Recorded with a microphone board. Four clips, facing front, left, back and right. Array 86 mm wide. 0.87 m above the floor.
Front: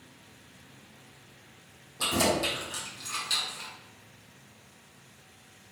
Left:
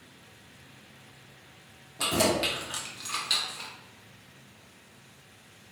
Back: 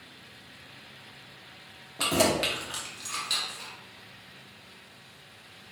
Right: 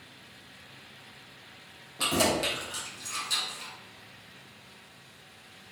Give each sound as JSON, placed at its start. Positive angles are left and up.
{"t": 2.0, "sound": "keys jangling", "azimuth_deg": -170, "distance_m": 1.1}